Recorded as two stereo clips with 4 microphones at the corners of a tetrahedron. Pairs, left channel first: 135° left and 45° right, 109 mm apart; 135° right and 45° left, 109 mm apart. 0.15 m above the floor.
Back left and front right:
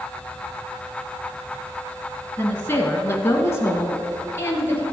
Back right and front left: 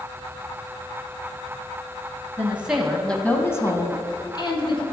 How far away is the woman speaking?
About 1.3 m.